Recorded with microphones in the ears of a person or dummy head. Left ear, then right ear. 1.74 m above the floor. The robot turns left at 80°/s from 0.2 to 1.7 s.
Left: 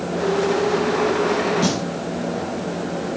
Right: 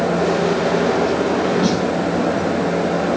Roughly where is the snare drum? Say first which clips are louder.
Right 4 dB; left.